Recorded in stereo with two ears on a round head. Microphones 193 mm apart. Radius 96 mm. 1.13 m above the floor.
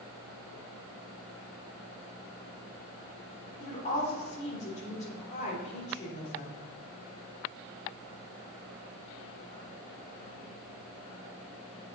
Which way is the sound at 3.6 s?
35° left (ahead or behind).